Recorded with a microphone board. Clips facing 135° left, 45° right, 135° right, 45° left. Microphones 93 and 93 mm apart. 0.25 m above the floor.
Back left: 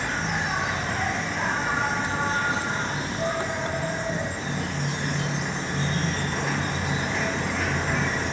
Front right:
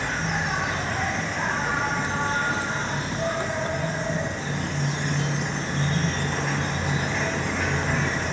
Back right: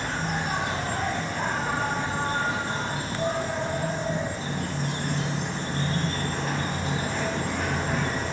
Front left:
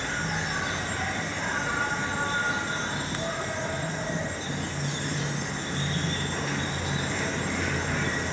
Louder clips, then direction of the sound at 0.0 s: Even, back right 2 dB; 135° right.